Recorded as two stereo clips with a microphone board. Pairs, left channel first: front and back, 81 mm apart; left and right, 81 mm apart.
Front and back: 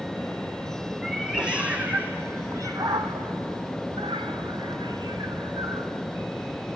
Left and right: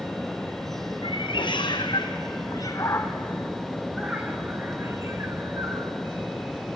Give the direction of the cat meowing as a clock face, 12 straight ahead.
9 o'clock.